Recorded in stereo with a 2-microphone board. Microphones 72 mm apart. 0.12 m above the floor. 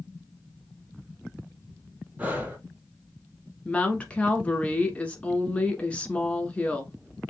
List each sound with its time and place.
2.2 s breathing: 25° right (ahead or behind), 1.2 m
3.6 s a woman speaking: 20° left (ahead or behind), 1.1 m